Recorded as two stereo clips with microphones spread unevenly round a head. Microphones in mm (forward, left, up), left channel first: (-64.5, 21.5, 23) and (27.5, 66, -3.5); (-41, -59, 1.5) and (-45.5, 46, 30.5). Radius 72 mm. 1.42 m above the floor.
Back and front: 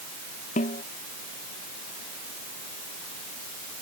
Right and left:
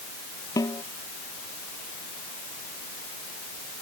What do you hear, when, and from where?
0.6 s a snare drum: 145° right